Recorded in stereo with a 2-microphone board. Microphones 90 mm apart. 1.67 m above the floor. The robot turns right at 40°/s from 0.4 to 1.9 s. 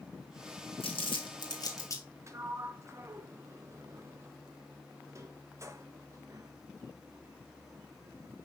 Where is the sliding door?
35° right (ahead or behind), 0.8 m.